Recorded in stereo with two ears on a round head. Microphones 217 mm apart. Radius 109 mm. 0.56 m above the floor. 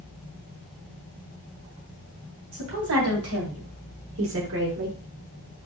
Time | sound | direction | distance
2.5 | a woman speaking | 65° right (ahead or behind) | 3 m